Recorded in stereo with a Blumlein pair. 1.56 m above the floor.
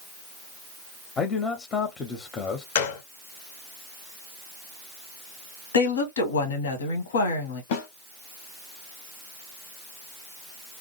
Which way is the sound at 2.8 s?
55° left.